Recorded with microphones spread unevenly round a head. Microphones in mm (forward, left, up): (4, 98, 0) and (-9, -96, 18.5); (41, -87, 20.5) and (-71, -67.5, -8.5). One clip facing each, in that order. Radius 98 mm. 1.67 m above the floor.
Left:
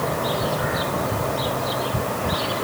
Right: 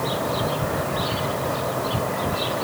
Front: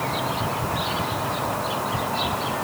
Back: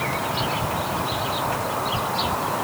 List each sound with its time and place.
Only background noise.